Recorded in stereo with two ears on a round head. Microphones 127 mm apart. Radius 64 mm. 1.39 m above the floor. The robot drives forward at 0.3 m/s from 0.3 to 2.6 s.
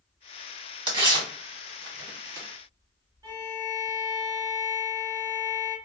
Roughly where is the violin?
Right.